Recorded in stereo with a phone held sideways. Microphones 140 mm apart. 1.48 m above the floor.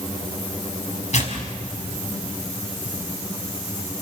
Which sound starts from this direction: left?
Tearing paper, at 1.1 s.